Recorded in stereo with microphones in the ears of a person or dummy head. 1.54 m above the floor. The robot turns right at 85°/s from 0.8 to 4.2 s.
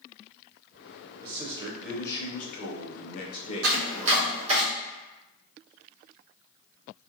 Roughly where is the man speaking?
Ahead right.